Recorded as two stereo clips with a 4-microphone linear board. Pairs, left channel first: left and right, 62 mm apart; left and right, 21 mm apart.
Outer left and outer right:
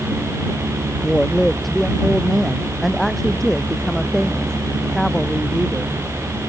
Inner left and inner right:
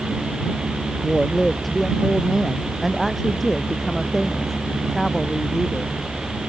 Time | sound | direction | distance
1.0 | a woman speaking | centre (ahead or behind) | ?